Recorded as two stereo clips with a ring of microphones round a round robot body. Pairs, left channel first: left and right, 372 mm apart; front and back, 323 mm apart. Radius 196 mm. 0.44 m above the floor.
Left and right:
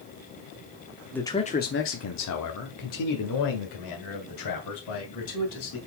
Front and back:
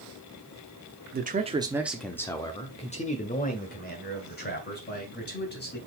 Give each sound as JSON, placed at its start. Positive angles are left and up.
{"t": 1.1, "sound": "a man speaking", "azimuth_deg": 175, "distance_m": 0.9}